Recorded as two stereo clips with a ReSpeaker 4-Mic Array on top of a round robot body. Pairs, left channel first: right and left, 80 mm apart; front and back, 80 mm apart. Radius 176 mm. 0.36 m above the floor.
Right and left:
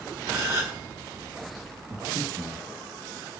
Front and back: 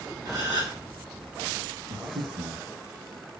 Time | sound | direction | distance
0.2 | a gasp | 145° left | 2.5 m
1.9 | breathing | 150° left | 2 m